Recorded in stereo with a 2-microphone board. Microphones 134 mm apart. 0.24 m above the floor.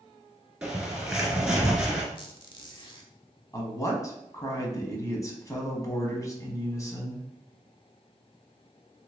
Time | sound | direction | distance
0.6 | a bird | 5° right (ahead or behind) | 1.4 m
2.1 | a squeak | 35° left (ahead or behind) | 0.7 m
3.5 | a woman speaking | 25° left (ahead or behind) | 1.4 m